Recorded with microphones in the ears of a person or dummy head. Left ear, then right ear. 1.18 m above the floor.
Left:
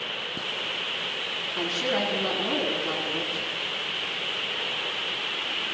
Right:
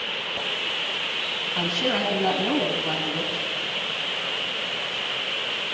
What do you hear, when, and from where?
1.6 s a woman speaking: 70° right (ahead or behind), 9.5 m